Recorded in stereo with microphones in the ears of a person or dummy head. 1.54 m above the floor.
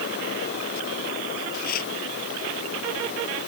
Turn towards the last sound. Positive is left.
turn(degrees=55)  # may be behind; listen again after turning